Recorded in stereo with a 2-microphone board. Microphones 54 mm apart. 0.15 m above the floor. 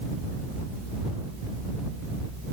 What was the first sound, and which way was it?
Only background noise.